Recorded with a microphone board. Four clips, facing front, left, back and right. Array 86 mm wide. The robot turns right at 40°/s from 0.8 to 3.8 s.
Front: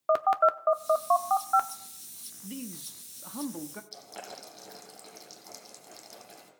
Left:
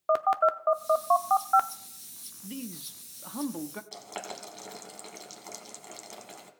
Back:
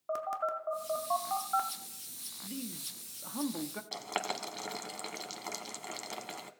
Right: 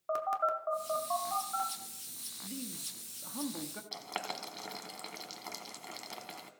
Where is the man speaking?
55° left, 0.7 m; by 3.8 s 110° left, 0.7 m.